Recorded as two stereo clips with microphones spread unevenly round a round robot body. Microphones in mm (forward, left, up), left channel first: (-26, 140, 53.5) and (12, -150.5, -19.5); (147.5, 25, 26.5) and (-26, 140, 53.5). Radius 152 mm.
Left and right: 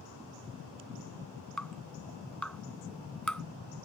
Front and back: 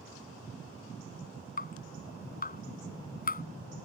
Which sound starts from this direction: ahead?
Dripping, at 1.6 s.